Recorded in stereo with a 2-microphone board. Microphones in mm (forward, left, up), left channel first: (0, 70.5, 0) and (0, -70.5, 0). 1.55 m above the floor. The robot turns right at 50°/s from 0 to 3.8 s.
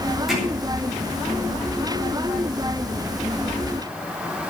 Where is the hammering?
Centre (ahead or behind), 8 m; by 0.4 s 5° left (ahead or behind), 8 m.